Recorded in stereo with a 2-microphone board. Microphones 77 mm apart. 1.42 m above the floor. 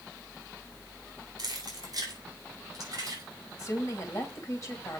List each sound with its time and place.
1.4 s keys jangling: 55° right (ahead or behind), 3.5 m; by 3.2 s 45° right (ahead or behind), 6 m
3.6 s a woman speaking: 40° left (ahead or behind), 3.5 m